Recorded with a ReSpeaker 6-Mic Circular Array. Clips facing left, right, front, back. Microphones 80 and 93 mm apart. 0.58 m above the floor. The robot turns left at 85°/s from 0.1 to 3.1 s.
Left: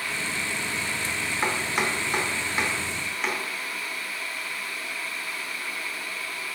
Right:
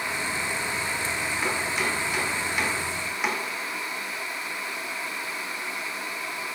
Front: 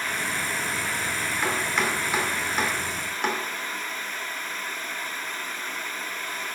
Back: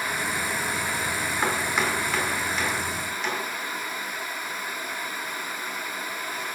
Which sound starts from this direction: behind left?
Chopping, at 1.4 s.